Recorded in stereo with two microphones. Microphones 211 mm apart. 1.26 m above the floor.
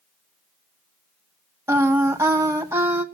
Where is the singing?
10° right (ahead or behind), 1.3 m.